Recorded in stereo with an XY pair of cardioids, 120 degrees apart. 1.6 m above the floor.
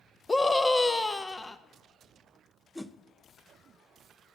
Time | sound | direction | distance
0.3 | a scream | 20° left | 0.5 m
2.8 | a whoosh | 10° left | 0.5 m